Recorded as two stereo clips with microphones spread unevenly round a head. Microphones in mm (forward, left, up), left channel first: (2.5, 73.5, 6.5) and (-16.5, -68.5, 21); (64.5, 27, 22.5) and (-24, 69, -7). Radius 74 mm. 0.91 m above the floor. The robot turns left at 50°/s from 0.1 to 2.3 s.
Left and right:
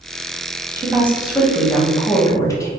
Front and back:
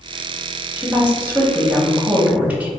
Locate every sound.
0.8 s a woman speaking: 160° right, 1.0 m; by 2.7 s 120° left, 1.0 m